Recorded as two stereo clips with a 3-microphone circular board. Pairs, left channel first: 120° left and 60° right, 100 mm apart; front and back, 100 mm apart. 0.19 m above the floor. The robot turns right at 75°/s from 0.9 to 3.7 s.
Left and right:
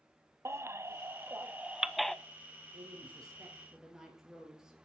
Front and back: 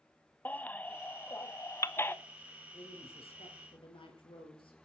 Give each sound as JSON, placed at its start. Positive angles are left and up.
{"t": 0.5, "sound": "a baby crying", "azimuth_deg": -55, "distance_m": 0.6}
{"t": 2.7, "sound": "a woman speaking", "azimuth_deg": -50, "distance_m": 4.0}